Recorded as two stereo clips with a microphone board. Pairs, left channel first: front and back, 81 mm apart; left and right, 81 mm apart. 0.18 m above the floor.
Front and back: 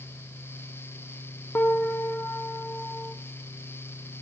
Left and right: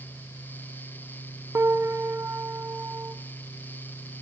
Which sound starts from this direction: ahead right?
A piano, at 1.6 s.